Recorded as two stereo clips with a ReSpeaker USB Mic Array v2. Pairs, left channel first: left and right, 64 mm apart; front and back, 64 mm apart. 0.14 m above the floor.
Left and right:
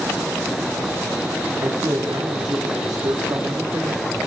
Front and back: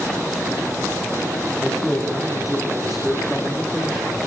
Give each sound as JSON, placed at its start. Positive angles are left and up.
{"t": 1.6, "sound": "a man speaking", "azimuth_deg": -95, "distance_m": 9.0}